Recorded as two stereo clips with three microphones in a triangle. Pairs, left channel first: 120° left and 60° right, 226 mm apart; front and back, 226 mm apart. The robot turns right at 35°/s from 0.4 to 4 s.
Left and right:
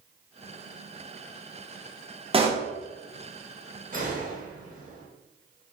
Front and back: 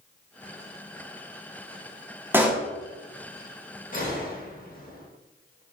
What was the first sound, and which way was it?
A pop, 105° right.